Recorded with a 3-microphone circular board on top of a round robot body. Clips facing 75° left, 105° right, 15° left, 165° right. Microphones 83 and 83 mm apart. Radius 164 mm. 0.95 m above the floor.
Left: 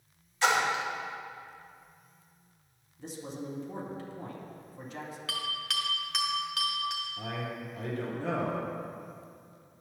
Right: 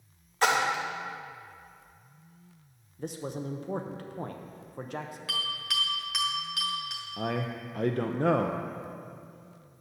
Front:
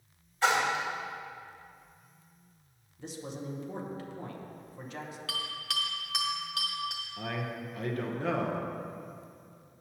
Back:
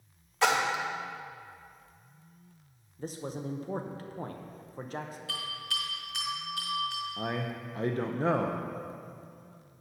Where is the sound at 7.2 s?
110° right, 0.7 m.